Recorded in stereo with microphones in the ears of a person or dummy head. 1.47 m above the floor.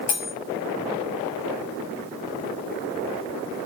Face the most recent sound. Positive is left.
turn(degrees=55)  # may be behind; listen again after turning